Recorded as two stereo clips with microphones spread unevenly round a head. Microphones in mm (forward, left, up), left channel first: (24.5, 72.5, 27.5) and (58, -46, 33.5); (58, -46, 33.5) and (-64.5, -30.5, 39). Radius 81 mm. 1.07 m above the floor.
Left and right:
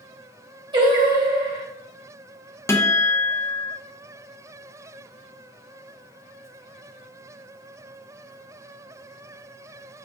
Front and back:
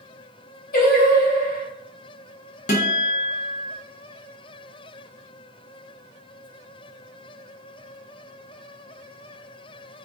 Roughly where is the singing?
Ahead.